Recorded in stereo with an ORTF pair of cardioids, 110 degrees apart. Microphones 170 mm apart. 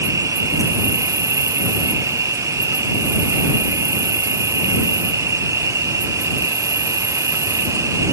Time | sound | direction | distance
0.0 | an insect | 20° right | ?